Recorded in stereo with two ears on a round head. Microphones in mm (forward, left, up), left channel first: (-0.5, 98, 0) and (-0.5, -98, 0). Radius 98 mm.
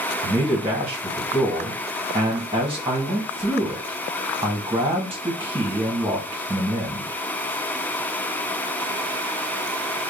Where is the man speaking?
10° right (ahead or behind), 1.5 m.